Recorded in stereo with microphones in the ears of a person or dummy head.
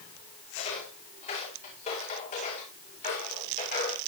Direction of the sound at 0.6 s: 35° left (ahead or behind).